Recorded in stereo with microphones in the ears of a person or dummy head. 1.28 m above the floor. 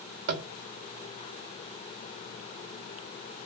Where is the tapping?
55° right (ahead or behind), 1.9 m.